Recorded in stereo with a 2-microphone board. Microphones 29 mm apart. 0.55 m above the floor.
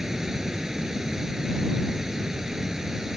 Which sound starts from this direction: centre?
Running water, at 0.0 s.